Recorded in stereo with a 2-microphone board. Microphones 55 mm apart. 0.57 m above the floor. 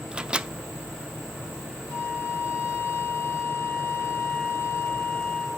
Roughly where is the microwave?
Centre.